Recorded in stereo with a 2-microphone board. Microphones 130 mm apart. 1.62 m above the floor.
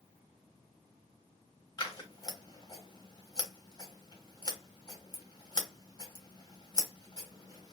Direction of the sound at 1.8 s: 30° left (ahead or behind).